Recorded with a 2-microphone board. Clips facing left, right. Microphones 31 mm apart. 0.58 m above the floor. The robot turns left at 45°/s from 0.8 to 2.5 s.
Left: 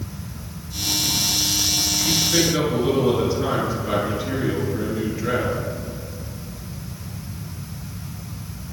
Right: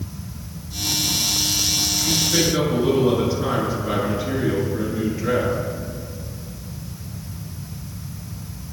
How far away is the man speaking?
About 8 m.